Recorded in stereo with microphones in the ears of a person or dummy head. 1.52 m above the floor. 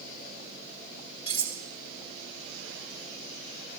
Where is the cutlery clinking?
35° left (ahead or behind), 1.8 m.